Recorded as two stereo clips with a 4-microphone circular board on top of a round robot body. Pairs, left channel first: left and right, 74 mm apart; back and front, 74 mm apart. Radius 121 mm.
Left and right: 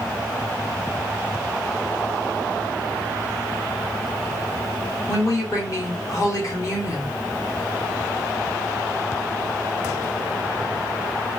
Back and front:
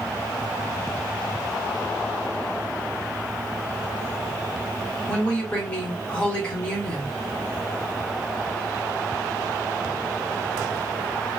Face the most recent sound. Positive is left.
turn(degrees=115)